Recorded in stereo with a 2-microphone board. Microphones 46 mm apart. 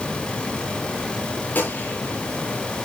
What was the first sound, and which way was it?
A gunshot, 50° left (ahead or behind).